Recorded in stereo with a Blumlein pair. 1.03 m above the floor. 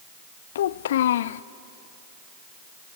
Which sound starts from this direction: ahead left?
A child speaking, at 0.6 s.